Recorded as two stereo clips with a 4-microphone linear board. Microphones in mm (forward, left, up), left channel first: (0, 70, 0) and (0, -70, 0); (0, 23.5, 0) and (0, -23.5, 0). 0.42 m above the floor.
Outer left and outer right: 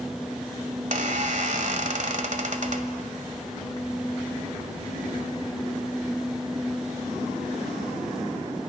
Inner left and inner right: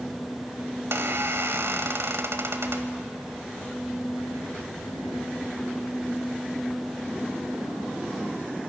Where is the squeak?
65° right (ahead or behind), 1.5 m.